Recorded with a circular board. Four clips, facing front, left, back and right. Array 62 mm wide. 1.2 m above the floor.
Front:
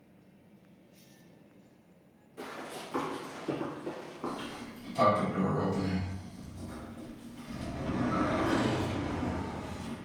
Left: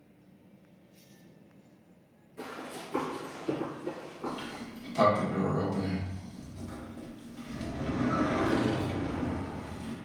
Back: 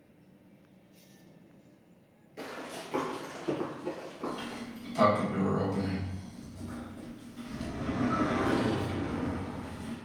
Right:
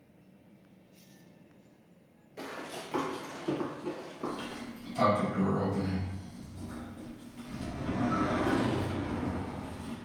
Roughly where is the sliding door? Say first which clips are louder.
Even, back 1 dB; behind left.